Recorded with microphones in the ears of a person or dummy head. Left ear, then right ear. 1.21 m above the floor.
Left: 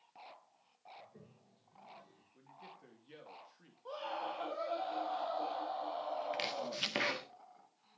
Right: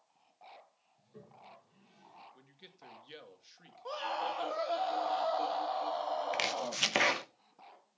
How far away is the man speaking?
About 2.5 m.